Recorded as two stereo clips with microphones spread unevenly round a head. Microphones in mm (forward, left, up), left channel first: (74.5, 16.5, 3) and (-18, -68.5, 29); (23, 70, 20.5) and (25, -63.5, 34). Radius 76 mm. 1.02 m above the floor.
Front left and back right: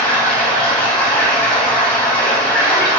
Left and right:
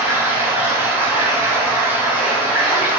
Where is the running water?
45° right, 0.9 m.